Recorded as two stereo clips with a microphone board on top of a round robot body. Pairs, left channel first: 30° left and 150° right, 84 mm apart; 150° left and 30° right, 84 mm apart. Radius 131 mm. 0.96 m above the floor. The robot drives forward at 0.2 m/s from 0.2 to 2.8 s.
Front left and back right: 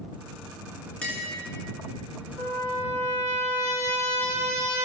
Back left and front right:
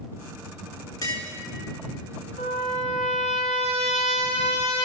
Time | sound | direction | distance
1.0 | tapping | 105° left | 2.5 m
2.4 | a trumpet | 145° left | 0.7 m